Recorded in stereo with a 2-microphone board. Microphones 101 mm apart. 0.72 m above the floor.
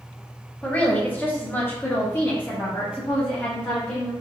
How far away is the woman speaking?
About 1.0 m.